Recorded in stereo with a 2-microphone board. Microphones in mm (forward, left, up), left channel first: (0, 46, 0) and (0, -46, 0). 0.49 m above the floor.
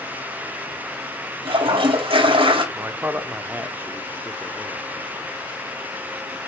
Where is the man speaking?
20° right (ahead or behind), 0.9 m.